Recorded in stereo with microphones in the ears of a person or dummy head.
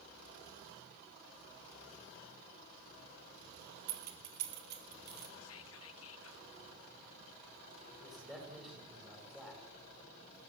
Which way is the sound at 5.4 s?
80° left.